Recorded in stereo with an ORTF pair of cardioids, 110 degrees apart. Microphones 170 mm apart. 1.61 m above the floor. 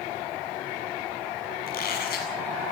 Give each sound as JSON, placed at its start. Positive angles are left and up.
{"t": 1.7, "sound": "a squeak", "azimuth_deg": 55, "distance_m": 7.0}